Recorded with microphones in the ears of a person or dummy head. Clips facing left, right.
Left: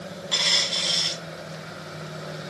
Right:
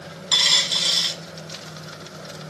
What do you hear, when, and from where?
0.3 s a dropped coin: 60° right (ahead or behind), 4 m